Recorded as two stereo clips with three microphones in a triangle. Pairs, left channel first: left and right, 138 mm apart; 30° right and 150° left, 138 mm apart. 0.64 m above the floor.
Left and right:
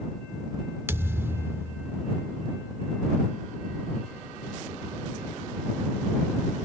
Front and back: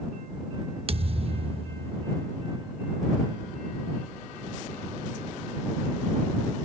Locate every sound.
0.9 s a thud: 160° right